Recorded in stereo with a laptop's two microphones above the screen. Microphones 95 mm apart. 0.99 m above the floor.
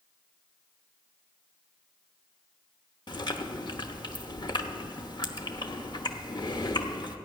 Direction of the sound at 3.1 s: 50° left (ahead or behind).